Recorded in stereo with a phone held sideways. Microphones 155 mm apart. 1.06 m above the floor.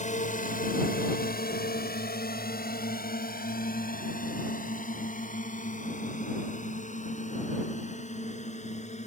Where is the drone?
50° left (ahead or behind); by 9.1 s 45° left (ahead or behind).